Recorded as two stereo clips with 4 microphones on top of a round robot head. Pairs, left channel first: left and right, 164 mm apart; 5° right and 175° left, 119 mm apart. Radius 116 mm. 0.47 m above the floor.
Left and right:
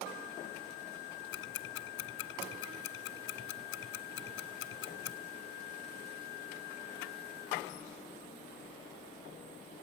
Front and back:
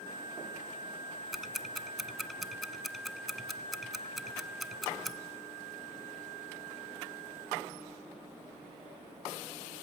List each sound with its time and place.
1.3 s ticking: 85° left, 1.0 m